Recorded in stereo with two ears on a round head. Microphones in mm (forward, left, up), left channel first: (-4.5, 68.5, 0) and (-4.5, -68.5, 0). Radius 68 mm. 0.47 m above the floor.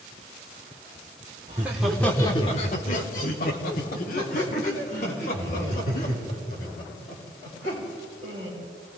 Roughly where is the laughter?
Right.